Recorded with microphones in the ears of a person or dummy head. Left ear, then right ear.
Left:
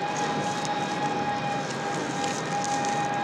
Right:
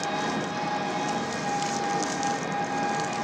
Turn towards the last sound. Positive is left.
turn(degrees=-5)  # may be behind; listen again after turning